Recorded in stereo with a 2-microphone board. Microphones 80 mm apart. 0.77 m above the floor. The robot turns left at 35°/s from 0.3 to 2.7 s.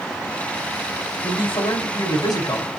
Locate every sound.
1.2 s a man speaking: 100° left, 4.5 m; by 2.7 s 50° left, 4.5 m